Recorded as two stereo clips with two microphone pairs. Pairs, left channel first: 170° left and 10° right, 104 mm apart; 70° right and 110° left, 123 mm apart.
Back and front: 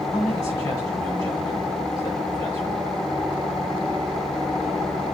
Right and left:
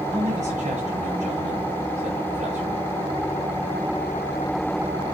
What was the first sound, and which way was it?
A man speaking, 120° left.